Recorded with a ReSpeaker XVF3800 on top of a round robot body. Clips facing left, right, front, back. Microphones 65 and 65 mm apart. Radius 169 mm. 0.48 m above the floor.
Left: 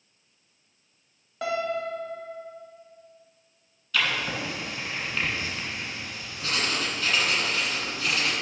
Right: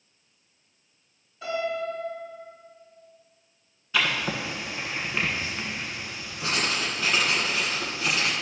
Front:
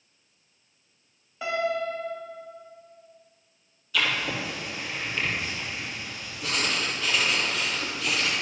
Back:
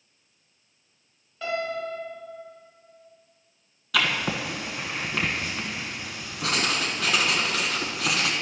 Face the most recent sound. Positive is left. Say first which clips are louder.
# right 1 dB, back 2 dB
turn(degrees=-160)